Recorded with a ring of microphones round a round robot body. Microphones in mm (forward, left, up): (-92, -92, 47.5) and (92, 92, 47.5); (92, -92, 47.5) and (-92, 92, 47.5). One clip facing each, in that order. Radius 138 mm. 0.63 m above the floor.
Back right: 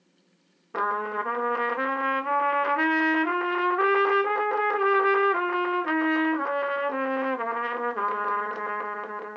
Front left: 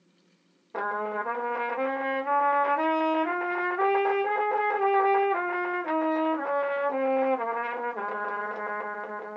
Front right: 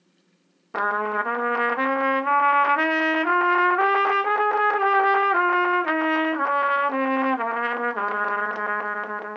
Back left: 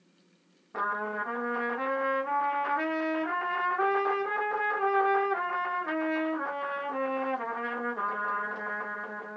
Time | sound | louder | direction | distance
0.7 | a trumpet | back right 1 dB, front right 8 dB | 65° right | 0.7 m